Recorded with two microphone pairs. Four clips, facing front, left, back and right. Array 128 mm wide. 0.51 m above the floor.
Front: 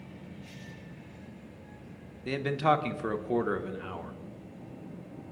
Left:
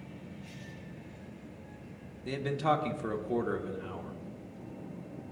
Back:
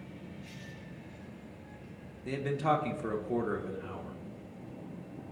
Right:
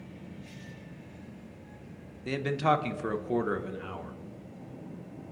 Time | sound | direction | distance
2.2 | a man speaking | 20° right | 0.9 m